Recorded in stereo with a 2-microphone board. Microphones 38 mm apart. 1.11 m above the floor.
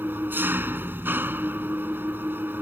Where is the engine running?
65° right (ahead or behind).